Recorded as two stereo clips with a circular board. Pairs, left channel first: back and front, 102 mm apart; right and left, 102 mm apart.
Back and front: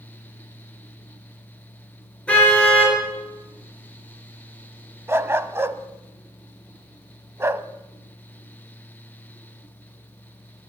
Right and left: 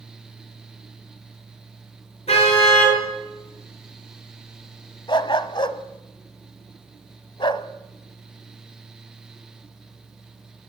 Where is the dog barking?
65° right, 1.1 m.